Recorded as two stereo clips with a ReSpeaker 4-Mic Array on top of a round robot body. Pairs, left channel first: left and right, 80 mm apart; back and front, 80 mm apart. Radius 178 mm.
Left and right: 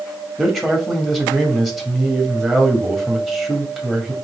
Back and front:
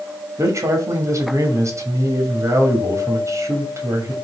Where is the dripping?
I don't hear dripping.